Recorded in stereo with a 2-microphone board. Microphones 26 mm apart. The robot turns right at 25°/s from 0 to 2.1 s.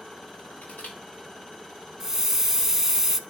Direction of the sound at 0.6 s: 90° left.